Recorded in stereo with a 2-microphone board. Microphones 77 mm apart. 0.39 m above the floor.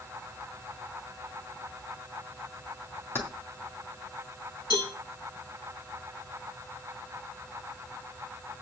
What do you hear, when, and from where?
3.1 s keys jangling: 30° left (ahead or behind), 2.5 m
4.7 s a cowbell: 70° left (ahead or behind), 7.5 m